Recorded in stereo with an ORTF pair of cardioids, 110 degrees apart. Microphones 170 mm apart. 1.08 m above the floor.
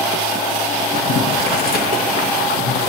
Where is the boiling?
60° left, 1.2 m.